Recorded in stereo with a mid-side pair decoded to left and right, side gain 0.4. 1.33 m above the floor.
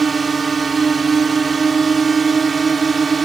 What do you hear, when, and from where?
0.0 s a drone: 35° right